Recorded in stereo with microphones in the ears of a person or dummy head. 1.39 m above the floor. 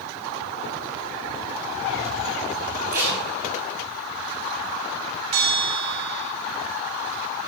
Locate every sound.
2.9 s tape being pulled: 50° right (ahead or behind), 5.5 m
5.3 s a bell: 60° right (ahead or behind), 1.7 m